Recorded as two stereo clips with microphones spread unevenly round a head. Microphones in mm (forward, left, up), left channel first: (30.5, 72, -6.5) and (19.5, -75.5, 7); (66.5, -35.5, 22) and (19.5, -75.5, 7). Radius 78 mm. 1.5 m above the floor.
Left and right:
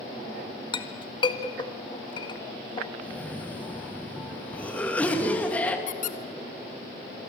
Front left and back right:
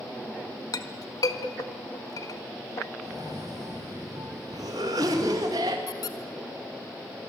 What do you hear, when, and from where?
0.7 s a clink: 25° left, 1.9 m
3.0 s a cough: 170° left, 2.5 m
5.9 s a squeak: 50° left, 1.3 m